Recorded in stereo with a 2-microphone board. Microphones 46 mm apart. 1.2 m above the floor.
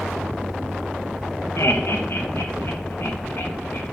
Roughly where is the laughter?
Left.